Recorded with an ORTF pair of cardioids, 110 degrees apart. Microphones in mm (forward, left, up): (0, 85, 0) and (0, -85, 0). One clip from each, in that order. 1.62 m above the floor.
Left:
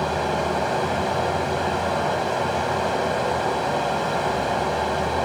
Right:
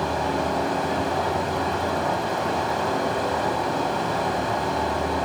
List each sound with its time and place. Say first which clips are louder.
0.0 s running water: left 1 dB; 30° left, 1.8 m